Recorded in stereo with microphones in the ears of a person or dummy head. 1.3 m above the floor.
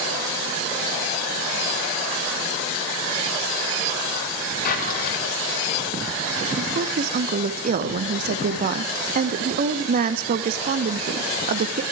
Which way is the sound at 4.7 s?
55° left (ahead or behind).